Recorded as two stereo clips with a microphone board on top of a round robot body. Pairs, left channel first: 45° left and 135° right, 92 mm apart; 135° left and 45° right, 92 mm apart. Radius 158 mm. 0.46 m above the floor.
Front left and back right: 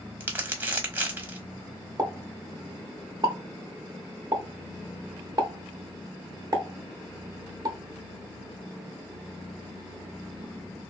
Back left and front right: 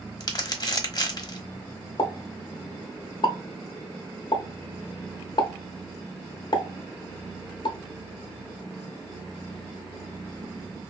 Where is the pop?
175° left, 0.9 m.